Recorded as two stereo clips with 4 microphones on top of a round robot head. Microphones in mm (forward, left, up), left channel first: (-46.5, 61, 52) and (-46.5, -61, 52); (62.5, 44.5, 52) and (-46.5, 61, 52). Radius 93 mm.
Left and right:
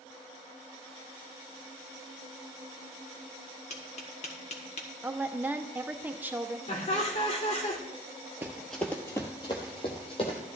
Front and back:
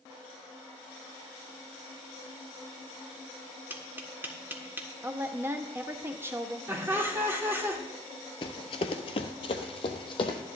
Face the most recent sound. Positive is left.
turn(degrees=35)